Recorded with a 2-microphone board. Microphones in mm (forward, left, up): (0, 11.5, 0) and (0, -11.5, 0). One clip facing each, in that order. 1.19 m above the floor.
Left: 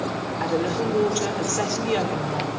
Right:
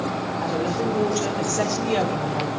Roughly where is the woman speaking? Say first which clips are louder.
Left 2 dB; left.